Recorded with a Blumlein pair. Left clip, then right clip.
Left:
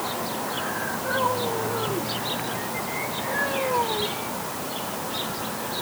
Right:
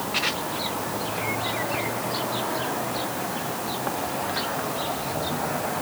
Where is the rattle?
No rattle in this recording.